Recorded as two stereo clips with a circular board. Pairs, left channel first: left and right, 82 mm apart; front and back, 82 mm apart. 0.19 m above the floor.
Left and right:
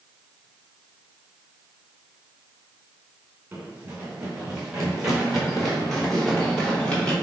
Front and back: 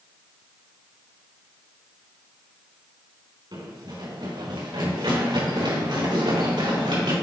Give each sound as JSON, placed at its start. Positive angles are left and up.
{"t": 3.5, "sound": "running footsteps", "azimuth_deg": -160, "distance_m": 3.0}